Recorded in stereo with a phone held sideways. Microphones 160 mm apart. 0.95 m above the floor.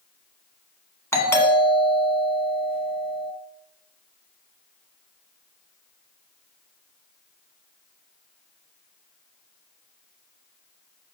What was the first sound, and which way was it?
A doorbell, 15° left (ahead or behind).